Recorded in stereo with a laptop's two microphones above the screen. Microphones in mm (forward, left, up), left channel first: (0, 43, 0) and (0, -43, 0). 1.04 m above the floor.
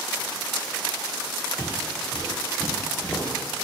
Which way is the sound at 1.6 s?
55° left (ahead or behind).